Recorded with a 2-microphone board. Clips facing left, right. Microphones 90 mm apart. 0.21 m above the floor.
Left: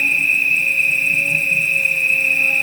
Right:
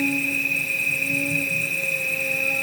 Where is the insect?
30° right (ahead or behind), 1.8 m.